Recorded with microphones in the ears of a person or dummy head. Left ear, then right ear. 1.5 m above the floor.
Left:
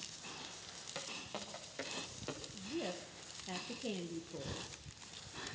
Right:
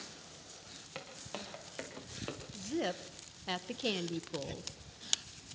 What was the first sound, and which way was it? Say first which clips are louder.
Footsteps: even; 15° right (ahead or behind).